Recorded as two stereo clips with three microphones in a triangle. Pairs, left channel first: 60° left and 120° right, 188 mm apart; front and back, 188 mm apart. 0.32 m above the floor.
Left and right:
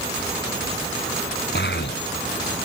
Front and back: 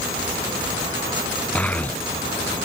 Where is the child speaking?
85° left; by 2.6 s 80° left.